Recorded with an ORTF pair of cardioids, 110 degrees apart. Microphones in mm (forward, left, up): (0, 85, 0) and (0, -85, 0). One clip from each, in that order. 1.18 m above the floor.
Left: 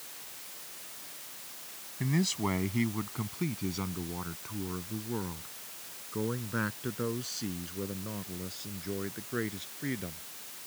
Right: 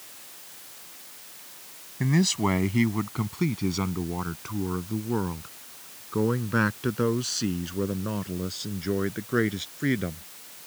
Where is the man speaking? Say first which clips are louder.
Right 7 dB; 40° right; by 10.2 s 55° right.